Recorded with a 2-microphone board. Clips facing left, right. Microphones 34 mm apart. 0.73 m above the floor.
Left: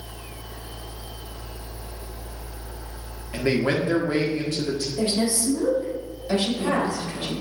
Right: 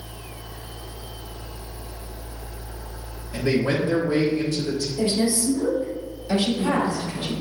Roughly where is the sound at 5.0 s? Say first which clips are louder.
Right 2 dB; left.